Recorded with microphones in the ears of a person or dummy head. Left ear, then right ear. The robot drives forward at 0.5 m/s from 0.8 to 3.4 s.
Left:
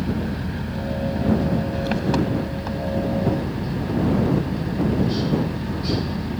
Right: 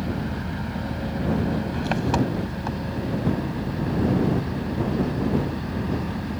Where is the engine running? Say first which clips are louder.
Left 2 dB; 30° right (ahead or behind); by 6.4 s 25° right (ahead or behind).